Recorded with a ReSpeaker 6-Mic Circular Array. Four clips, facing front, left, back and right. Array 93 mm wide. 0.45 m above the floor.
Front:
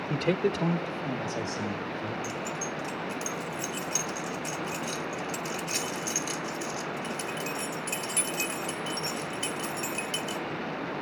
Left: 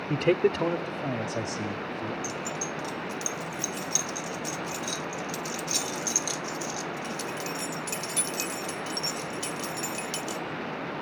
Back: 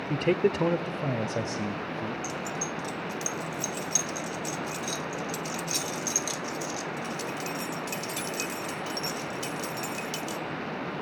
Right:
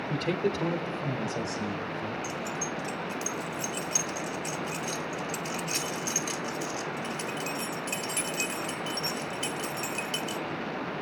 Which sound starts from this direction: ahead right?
Keys jangling, at 2.2 s.